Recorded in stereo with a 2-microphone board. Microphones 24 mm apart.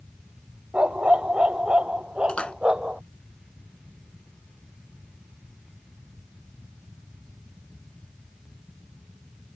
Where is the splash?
60° left (ahead or behind).